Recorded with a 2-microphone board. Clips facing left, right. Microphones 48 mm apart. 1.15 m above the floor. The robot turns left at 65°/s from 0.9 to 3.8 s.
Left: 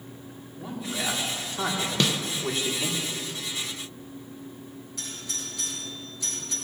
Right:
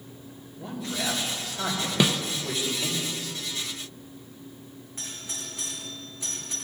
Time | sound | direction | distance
0.6 | a man speaking | 165° left | 2.5 m
2.0 | a snare drum | 15° right (ahead or behind) | 0.6 m
5.0 | a doorbell | 30° right (ahead or behind) | 3 m